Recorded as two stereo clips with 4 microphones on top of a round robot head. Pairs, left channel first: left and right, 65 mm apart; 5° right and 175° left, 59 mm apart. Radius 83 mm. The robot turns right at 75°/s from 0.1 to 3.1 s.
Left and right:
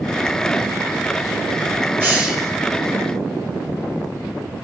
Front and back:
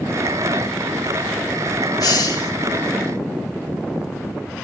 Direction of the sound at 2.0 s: 25° right.